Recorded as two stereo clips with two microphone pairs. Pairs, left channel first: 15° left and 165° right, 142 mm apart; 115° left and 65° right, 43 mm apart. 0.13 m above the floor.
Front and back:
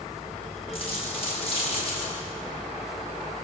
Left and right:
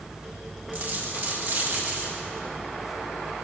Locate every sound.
0.7 s a dropped coin: 30° right, 10 m